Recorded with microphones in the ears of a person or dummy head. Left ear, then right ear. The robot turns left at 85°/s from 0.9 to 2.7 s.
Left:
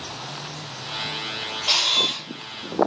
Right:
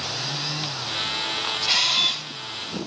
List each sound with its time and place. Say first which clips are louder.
1.7 s a camera shutter: left 1 dB; 15° left, 1.9 m; by 2.3 s 35° right, 1.9 m